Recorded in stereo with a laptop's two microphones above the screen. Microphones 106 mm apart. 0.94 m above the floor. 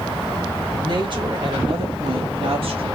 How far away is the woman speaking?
About 1.7 m.